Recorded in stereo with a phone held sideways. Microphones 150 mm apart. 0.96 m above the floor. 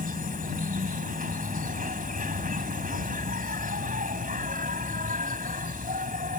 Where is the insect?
70° right (ahead or behind).